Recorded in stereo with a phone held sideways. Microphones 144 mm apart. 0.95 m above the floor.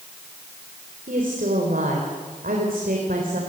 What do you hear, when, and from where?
1.1 s a woman speaking: 80° right, 4.5 m